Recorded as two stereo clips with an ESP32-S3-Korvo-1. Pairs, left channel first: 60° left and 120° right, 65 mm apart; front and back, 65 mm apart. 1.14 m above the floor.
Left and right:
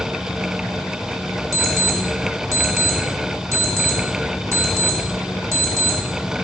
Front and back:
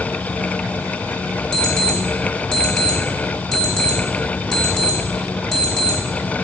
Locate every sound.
1.5 s an alarm clock: 80° right, 1.2 m